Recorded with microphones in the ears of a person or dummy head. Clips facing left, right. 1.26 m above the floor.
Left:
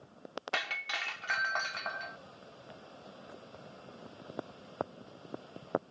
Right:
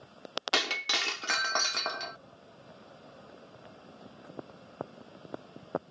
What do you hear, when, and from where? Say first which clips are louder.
0.5 s breaking glass: right 9 dB; 70° right (ahead or behind)